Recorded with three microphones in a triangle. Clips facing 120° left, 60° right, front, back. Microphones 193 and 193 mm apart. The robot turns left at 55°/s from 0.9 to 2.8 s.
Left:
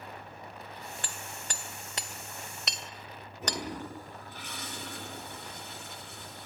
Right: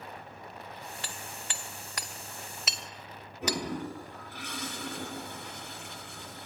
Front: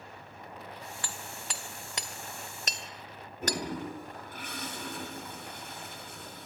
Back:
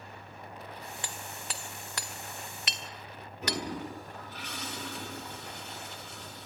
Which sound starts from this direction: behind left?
Hammering, at 1.0 s.